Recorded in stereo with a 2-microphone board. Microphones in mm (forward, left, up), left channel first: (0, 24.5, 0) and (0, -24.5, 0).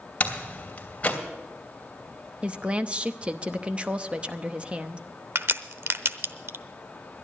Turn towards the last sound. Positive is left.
turn(degrees=-60)  # may be behind; listen again after turning